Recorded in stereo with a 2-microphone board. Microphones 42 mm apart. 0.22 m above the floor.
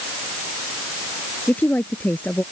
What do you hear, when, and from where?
1.5 s a woman speaking: 40° left (ahead or behind)